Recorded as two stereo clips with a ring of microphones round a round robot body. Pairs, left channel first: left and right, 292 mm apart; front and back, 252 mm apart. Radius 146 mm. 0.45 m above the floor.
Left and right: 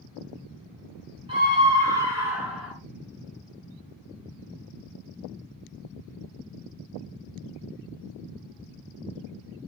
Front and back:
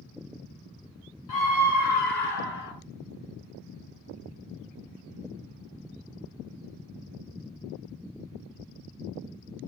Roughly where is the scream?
Ahead.